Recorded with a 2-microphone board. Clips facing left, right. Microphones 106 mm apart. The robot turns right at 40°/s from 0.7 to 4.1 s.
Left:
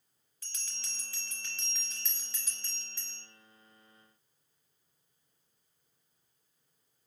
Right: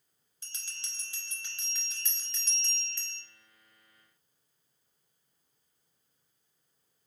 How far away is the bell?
About 0.8 m.